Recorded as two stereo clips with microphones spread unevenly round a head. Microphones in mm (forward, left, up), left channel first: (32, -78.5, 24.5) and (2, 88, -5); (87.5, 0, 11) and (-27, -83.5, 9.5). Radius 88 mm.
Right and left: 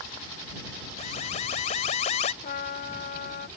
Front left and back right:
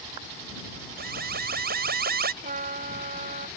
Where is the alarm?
135° right.